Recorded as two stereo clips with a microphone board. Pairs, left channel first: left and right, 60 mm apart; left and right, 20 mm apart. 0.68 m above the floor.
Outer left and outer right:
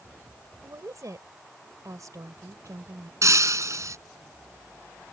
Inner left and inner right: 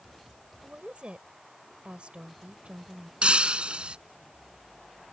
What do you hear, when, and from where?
0.6 s a woman speaking: 70° right (ahead or behind)
3.2 s breaking glass: 60° right (ahead or behind)